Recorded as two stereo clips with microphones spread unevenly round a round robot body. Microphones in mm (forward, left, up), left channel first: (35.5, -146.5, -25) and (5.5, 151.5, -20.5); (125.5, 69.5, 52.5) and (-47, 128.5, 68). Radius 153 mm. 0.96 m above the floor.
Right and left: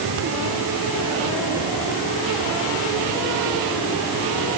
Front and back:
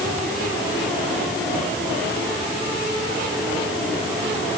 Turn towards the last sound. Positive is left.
No sound to turn to.